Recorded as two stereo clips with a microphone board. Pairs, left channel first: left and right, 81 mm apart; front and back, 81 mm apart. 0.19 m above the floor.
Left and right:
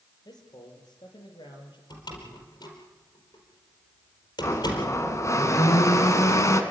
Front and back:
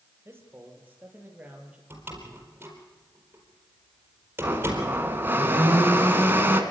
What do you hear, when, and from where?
0.2 s a man speaking: 120° left, 4.5 m; by 1.8 s 105° left, 4.5 m
1.9 s a door slam: 115° left, 4.5 m
4.4 s a blender: 125° left, 2 m